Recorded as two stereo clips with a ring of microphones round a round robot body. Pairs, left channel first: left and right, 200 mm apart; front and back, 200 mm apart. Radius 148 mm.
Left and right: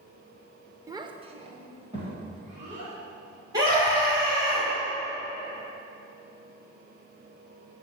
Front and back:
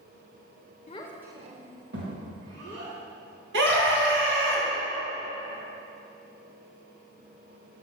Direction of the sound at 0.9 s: 25° right.